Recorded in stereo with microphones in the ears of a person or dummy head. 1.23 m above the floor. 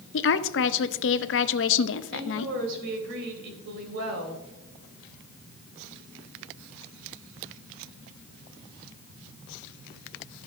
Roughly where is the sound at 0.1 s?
Left.